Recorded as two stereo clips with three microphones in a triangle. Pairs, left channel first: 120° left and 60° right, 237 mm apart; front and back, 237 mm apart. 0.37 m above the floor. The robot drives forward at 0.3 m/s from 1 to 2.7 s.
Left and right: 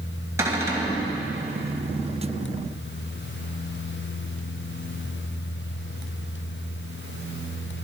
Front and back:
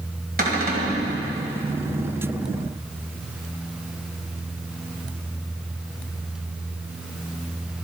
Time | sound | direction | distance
0.4 | a cupboard door | 135° right | 2.5 m